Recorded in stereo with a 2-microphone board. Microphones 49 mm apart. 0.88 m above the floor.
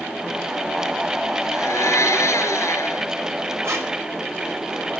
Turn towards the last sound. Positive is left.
turn(degrees=-60)  # may be behind; listen again after turning